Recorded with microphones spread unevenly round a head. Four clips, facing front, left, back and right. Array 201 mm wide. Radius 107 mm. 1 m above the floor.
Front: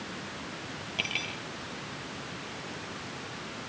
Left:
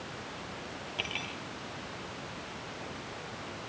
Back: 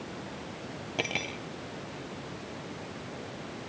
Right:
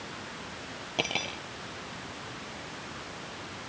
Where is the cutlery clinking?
145° right.